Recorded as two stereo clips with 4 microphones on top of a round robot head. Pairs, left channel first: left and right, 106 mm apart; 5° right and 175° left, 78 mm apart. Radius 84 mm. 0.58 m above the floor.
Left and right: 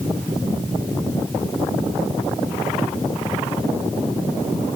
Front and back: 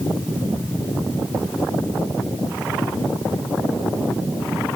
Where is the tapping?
I don't hear tapping.